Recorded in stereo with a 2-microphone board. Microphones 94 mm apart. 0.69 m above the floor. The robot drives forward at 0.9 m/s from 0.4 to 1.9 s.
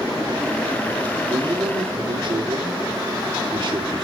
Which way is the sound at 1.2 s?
45° right (ahead or behind).